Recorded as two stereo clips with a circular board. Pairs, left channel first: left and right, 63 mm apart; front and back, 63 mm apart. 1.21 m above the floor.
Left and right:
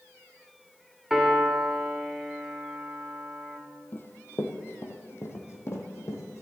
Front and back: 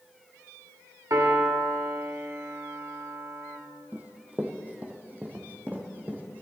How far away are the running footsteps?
About 1.8 m.